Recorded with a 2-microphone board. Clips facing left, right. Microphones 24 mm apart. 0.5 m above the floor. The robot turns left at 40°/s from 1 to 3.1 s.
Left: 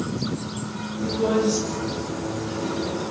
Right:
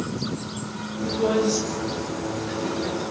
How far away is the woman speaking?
About 9.5 m.